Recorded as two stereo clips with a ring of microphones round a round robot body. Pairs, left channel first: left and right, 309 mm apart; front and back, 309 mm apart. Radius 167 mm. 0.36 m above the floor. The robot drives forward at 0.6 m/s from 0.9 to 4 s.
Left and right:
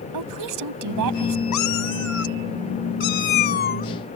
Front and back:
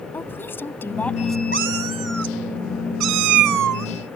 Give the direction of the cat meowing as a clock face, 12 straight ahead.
8 o'clock.